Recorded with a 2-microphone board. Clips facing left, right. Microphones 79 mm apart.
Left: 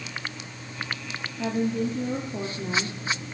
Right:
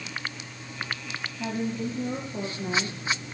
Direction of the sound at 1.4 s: 60° left (ahead or behind).